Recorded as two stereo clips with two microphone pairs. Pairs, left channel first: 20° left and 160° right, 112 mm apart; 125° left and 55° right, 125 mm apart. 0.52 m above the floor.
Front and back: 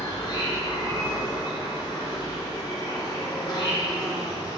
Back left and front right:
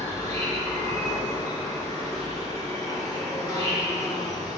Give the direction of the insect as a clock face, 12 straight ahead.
10 o'clock.